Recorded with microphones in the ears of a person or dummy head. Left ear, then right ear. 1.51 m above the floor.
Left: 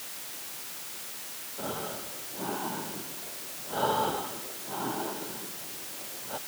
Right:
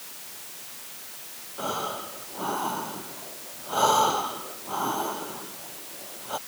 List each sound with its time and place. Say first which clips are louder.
1.6 s breathing: right 6 dB; 70° right (ahead or behind)